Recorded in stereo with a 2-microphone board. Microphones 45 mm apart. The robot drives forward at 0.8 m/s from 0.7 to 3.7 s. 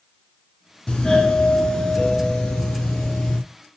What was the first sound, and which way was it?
A doorbell, 15° left (ahead or behind).